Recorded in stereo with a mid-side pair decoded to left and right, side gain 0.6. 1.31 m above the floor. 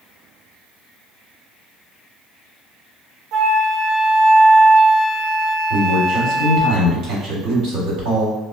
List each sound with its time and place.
3.3 s a flute: 55° right, 0.6 m
5.7 s a man speaking: 60° right, 1.2 m